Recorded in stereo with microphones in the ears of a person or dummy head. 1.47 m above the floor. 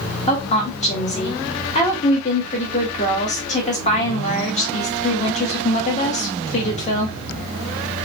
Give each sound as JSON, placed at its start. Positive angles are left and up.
{"t": 0.3, "sound": "a woman speaking", "side_deg": 30, "distance_m": 1.1}